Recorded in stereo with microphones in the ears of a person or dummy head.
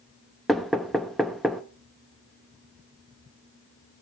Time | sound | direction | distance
0.5 | knocking | centre (ahead or behind) | 1.1 m